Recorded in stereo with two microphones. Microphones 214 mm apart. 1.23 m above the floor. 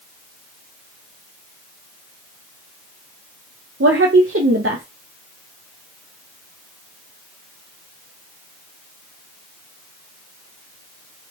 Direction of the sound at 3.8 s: 80° right.